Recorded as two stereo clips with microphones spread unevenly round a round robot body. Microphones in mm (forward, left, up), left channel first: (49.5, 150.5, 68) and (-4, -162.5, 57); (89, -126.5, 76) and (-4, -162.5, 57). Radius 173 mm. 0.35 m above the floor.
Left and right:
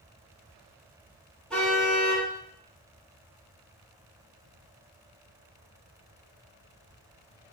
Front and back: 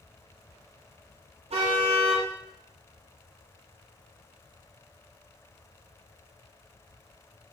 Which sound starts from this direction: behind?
A car horn, at 1.5 s.